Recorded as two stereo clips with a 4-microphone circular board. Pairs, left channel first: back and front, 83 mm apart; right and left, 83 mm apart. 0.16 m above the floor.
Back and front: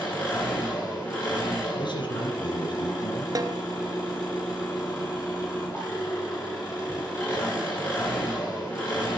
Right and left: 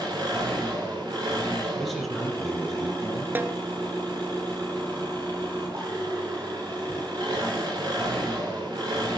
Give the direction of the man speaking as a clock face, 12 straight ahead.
6 o'clock.